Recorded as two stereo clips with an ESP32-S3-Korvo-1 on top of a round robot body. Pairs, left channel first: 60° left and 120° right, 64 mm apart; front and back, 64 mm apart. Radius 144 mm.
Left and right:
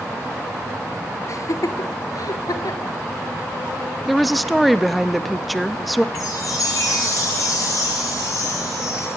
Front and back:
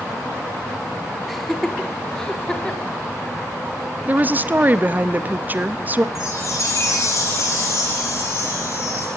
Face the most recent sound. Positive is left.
turn(degrees=40)